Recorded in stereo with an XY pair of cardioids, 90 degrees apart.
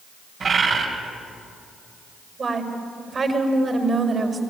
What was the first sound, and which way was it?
A bird, 60° right.